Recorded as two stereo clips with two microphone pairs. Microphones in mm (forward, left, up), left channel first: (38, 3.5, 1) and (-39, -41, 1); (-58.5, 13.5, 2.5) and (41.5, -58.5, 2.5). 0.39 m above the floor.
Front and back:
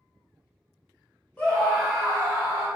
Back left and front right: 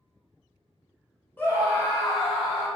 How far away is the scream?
About 1.3 m.